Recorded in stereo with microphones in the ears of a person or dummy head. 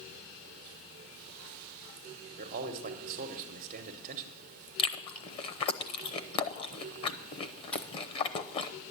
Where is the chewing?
30° left (ahead or behind), 0.7 m.